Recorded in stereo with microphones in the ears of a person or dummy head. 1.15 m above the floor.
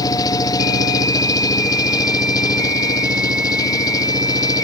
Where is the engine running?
20° left (ahead or behind).